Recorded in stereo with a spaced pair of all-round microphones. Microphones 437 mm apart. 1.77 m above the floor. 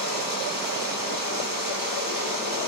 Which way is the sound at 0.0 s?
50° right (ahead or behind).